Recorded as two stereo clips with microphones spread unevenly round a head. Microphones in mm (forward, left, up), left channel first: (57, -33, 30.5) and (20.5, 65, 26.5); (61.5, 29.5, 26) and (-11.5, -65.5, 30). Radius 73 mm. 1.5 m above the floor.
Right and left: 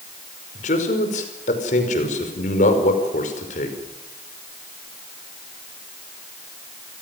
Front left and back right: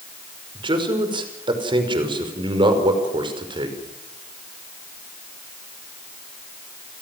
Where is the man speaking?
75° right, 5.5 m.